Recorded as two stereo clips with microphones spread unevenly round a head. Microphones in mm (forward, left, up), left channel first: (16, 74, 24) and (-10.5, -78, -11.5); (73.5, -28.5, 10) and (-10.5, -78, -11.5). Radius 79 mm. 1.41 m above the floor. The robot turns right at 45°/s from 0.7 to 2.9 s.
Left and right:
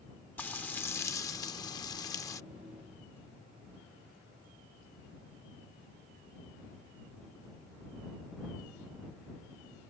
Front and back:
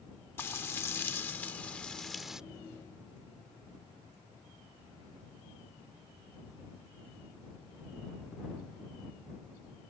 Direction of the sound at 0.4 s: 30° left.